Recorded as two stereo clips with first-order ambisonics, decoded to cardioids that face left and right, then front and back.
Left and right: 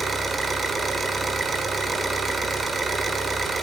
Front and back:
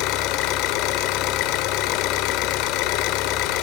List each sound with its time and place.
0.0 s an engine running: 15° right, 1.4 m